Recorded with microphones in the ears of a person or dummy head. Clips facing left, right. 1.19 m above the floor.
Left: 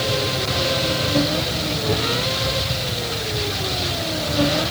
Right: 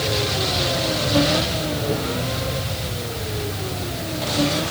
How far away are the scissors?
I don't hear scissors.